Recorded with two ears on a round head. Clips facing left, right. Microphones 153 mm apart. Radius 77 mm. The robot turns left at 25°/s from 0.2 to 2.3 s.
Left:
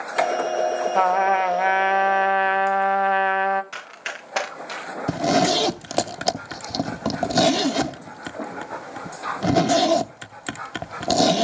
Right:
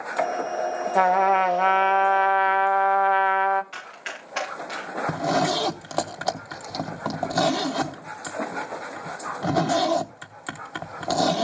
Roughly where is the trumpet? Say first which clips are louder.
Right 1 dB; behind.